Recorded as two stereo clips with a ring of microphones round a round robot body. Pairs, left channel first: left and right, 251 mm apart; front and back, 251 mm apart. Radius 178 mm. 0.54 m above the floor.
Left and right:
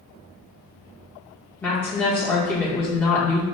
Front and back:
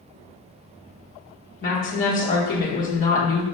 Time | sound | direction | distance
1.6 | a woman speaking | 15° left | 1.0 m